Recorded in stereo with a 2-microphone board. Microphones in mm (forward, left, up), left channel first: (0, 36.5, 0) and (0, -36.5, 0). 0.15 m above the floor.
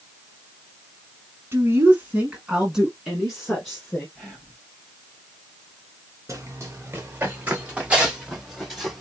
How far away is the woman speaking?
About 1.2 m.